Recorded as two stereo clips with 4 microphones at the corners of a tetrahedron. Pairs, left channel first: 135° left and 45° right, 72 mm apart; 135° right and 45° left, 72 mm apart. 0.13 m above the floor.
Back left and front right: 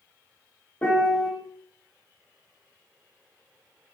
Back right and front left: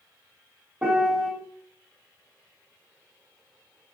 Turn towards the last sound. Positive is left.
turn(degrees=105)